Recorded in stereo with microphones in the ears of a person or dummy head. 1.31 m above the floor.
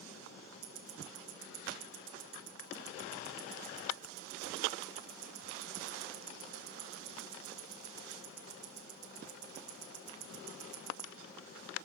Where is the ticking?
75° right (ahead or behind), 1.4 m.